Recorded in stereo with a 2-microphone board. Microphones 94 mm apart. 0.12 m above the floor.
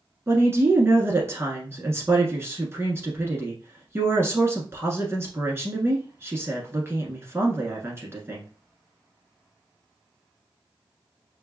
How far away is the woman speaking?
About 1.2 m.